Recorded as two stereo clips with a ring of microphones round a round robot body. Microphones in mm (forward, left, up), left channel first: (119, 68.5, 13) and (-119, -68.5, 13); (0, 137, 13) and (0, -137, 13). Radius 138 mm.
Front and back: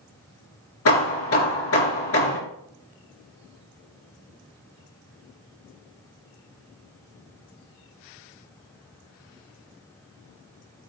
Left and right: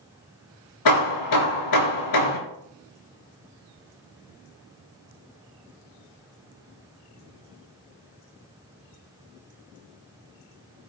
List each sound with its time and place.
0.8 s hammering: 75° left, 3.5 m